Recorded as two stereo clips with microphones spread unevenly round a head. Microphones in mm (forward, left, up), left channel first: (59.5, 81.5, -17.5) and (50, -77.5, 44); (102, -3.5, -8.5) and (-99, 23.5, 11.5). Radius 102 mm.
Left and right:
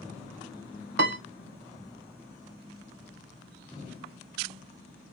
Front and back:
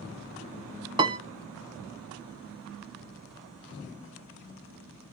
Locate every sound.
1.0 s a piano: 120° right, 0.6 m